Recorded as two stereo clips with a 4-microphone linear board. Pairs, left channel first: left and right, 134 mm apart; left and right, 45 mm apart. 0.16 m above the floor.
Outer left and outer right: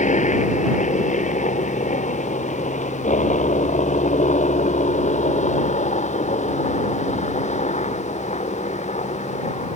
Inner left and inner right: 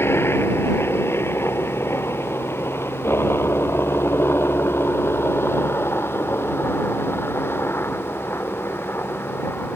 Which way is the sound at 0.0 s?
65° left (ahead or behind).